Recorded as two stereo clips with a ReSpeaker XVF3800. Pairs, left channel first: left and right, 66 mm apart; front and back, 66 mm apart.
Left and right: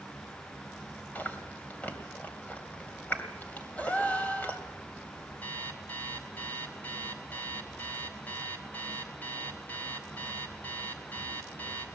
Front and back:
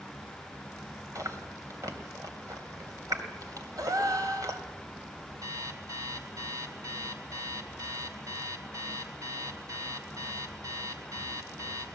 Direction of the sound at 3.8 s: 155° left.